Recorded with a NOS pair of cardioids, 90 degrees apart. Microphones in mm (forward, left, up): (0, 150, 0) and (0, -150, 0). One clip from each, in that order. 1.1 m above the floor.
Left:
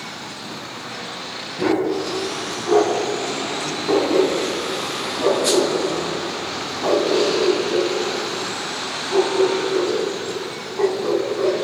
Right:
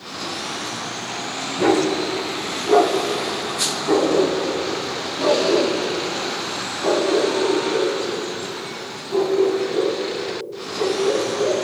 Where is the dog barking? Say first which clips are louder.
Right 2 dB; 20° right, 5 m; by 11.6 s 60° left, 4 m.